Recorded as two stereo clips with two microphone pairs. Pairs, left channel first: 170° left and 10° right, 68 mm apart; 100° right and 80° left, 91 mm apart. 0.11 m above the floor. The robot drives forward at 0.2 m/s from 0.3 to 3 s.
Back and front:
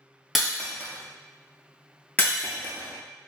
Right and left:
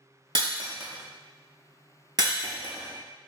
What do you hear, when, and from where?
0.3 s breaking glass: 80° left, 0.8 m; by 3.3 s 120° left, 0.9 m